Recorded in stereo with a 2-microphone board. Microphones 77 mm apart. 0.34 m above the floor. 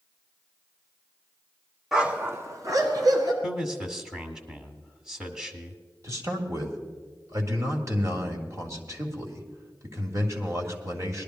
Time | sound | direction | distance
1.9 | a dog barking | 5° right (ahead or behind) | 0.9 m
3.4 | a man speaking | 10° right (ahead or behind) | 1.3 m
6.0 | a man speaking | 40° right (ahead or behind) | 1.8 m